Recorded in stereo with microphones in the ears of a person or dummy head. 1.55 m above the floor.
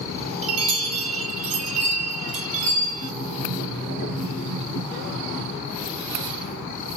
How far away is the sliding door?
About 1.6 m.